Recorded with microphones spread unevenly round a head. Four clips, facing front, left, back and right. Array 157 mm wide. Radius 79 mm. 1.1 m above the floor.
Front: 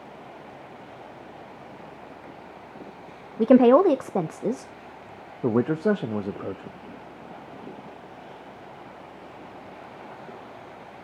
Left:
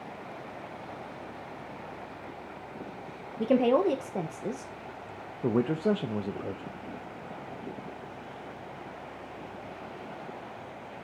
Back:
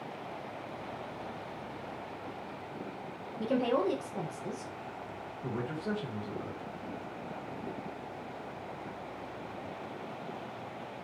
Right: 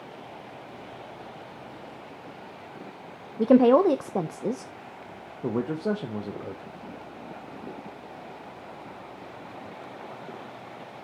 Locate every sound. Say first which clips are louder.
3.4 s a woman speaking: right 6 dB, front 14 dB; 20° right, 0.6 m
5.4 s a man speaking: left 1 dB, front 14 dB; 5° left, 0.7 m